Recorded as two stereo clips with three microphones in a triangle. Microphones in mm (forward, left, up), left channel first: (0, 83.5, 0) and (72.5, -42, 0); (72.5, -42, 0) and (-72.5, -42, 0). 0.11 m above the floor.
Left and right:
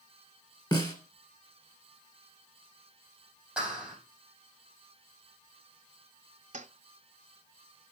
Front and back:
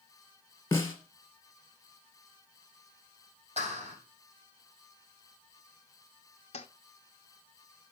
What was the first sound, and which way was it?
A snare drum, 65° left.